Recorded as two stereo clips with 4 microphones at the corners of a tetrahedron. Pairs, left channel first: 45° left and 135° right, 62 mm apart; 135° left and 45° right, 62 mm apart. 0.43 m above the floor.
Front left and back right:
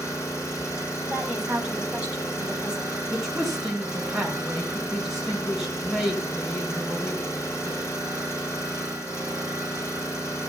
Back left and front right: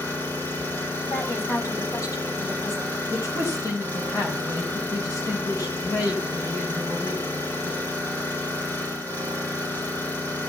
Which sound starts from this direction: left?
An engine running, at 0.0 s.